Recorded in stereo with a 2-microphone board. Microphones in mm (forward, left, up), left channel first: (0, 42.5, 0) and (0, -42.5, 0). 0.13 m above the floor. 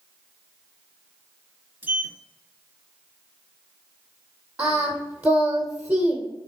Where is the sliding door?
20° right (ahead or behind), 0.7 m.